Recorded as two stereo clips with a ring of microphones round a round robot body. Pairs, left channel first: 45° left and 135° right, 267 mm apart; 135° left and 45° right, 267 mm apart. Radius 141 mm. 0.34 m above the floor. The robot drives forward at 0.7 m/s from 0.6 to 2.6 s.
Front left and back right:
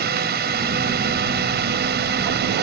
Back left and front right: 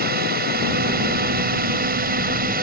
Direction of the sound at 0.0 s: 90° right.